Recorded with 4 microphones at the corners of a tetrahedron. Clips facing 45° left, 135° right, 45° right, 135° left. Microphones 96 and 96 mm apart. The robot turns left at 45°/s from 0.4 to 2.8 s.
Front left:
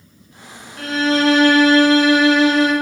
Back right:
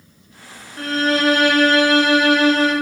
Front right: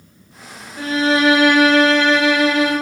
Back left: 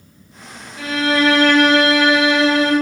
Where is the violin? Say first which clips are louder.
Front left 1 dB, front right 1 dB; 90° right, 1.2 m; by 2.7 s straight behind, 1.2 m.